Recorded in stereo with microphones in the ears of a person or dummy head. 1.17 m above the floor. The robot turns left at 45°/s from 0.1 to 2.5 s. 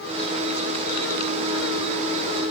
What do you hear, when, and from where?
Only background noise.